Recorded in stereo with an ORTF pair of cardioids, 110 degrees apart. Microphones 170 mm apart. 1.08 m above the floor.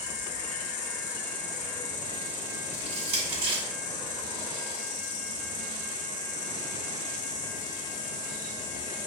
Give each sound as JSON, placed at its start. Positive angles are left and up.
{"t": 0.0, "sound": "an insect", "azimuth_deg": 45, "distance_m": 1.0}
{"t": 2.7, "sound": "crushing", "azimuth_deg": -35, "distance_m": 1.9}